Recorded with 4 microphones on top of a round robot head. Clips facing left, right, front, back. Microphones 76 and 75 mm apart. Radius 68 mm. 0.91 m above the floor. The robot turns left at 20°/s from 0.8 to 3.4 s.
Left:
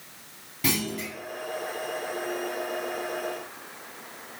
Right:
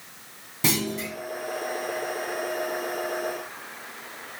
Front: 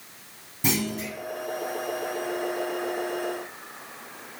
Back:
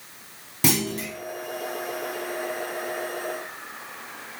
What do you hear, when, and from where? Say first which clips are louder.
0.6 s a clunk: right 2 dB, back 2 dB; 155° right, 1.3 m; by 1.1 s 160° right, 1.3 m